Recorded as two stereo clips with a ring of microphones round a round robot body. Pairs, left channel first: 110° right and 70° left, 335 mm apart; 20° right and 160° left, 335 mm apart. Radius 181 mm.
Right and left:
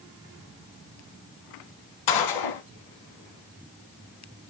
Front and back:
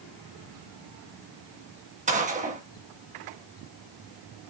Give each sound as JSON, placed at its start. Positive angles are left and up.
{"t": 2.1, "sound": "a gunshot", "azimuth_deg": -135, "distance_m": 1.9}